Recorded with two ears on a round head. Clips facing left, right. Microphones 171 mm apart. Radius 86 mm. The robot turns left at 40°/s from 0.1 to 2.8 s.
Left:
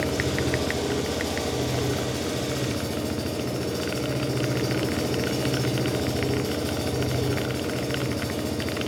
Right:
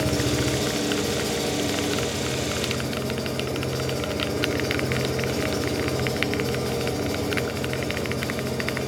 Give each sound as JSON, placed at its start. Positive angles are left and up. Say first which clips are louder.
{"t": 0.0, "sound": "an engine running", "louder": "right 2 dB", "azimuth_deg": -115, "distance_m": 5.0}